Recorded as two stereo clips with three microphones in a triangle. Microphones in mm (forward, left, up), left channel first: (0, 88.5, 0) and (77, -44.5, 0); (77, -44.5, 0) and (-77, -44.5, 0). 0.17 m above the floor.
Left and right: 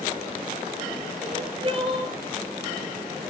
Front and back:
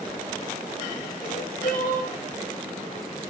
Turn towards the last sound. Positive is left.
turn(degrees=-10)